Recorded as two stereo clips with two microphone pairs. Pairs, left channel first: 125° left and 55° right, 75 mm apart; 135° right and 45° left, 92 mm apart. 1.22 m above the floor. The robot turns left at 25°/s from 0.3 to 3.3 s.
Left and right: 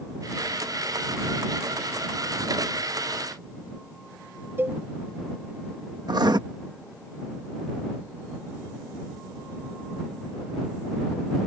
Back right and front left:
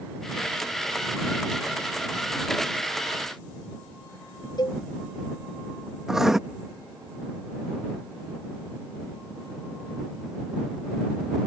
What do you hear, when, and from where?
4.6 s a cowbell: 115° right
6.1 s writing: 40° right